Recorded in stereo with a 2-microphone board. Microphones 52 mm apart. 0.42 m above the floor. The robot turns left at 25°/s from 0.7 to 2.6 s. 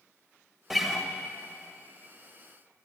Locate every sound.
0.7 s a guitar: 5° right (ahead or behind), 0.6 m; by 1.1 s 5° left (ahead or behind), 0.6 m